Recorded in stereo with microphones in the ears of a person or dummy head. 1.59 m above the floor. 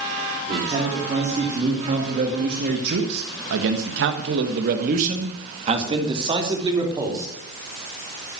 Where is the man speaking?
30° right (ahead or behind), 3.5 m; by 7.3 s 15° right (ahead or behind), 3.5 m.